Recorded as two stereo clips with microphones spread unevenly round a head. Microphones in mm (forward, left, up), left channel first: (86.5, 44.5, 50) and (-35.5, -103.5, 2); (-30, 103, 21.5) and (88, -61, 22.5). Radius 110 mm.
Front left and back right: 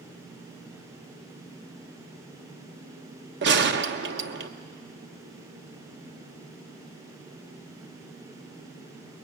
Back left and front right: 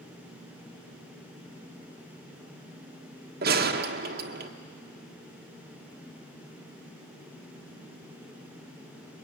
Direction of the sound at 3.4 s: 95° right.